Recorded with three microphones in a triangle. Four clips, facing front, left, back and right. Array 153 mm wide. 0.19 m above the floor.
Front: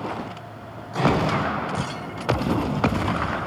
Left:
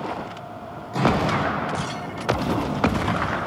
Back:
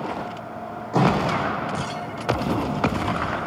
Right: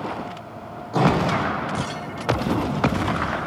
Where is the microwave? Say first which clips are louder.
Right 2 dB, back 1 dB; 160° right, 8.5 m.